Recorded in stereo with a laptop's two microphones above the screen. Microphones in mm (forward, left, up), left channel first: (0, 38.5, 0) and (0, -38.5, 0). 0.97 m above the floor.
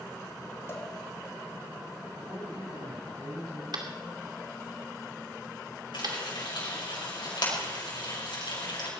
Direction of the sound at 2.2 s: 80° right.